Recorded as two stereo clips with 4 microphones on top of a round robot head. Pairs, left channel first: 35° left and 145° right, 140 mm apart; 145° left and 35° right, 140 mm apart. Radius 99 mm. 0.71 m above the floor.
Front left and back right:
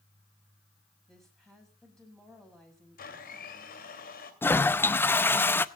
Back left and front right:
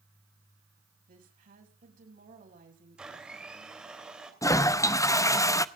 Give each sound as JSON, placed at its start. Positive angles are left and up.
{"t": 1.1, "sound": "a woman speaking", "azimuth_deg": -55, "distance_m": 5.5}
{"t": 3.0, "sound": "a blender", "azimuth_deg": 50, "distance_m": 3.0}
{"t": 4.4, "sound": "a toilet flushing", "azimuth_deg": 95, "distance_m": 0.8}